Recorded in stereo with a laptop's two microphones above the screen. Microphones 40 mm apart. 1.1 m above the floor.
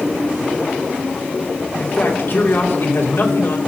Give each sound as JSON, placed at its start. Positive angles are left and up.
{"t": 1.8, "sound": "a man speaking", "side_deg": 50, "distance_m": 3.0}